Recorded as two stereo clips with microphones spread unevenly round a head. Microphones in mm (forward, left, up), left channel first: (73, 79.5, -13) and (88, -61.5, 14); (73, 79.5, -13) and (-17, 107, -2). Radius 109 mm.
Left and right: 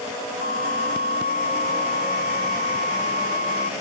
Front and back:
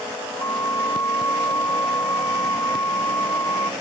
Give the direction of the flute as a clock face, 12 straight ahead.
3 o'clock.